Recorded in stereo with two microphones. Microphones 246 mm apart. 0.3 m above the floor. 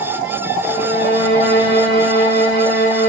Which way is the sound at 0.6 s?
55° left (ahead or behind).